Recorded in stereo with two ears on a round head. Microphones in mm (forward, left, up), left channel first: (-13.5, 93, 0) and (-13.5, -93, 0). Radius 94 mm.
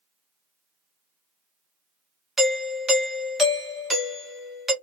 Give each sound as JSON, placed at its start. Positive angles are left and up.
{"t": 2.4, "sound": "a doorbell", "side_deg": 0, "distance_m": 1.3}